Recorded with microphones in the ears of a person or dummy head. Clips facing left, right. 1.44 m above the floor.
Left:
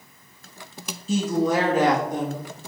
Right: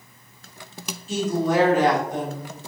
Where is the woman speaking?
75° left (ahead or behind), 2 m; by 2.5 s 85° left, 2.5 m.